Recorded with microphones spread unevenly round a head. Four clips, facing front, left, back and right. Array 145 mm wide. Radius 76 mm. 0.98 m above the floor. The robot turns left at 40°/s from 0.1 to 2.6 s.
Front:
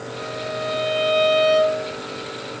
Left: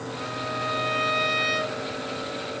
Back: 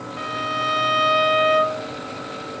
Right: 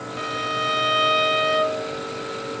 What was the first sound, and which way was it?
A violin, 115° right.